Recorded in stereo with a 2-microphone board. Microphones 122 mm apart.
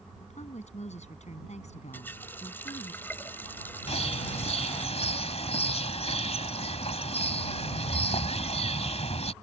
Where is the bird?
60° left (ahead or behind).